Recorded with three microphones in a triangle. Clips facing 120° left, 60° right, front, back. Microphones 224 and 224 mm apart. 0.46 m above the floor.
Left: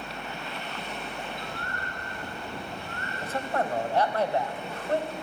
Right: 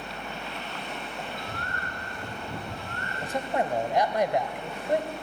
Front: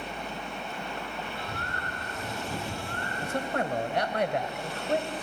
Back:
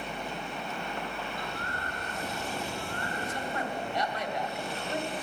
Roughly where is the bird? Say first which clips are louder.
Even, even; ahead.